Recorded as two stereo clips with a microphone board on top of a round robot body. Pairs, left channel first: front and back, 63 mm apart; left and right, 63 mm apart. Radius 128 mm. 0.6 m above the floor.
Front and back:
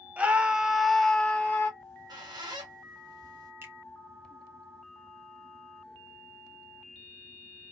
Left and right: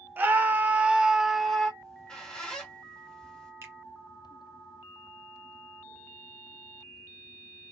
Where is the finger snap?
135° right, 1.5 m.